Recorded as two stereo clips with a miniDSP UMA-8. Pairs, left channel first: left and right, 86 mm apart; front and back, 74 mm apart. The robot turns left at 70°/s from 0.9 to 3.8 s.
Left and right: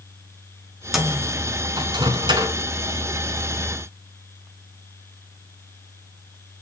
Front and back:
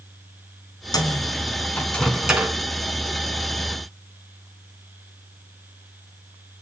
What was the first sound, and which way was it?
A microwave, 5° right.